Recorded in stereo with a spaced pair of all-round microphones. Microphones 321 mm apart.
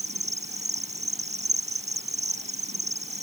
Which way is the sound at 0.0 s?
20° right (ahead or behind).